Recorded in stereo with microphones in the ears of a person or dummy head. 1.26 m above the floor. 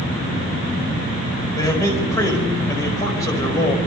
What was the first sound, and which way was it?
A man speaking, 15° left (ahead or behind).